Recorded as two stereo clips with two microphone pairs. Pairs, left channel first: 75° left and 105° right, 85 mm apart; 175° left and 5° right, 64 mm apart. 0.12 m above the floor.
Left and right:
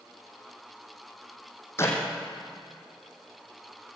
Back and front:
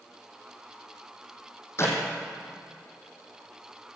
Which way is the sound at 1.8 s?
135° left.